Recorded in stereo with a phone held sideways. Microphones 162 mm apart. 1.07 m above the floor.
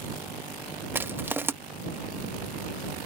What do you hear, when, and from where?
0.9 s crushing: 15° right (ahead or behind)